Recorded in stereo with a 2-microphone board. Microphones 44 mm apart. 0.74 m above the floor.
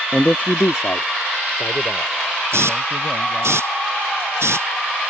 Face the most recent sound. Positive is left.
turn(degrees=-70)  # may be behind; listen again after turning